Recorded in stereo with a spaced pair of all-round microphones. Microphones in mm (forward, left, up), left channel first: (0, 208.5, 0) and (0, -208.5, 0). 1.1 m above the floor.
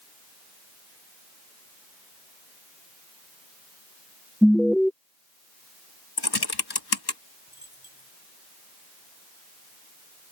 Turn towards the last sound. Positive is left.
turn(degrees=-55)  # may be behind; listen again after turning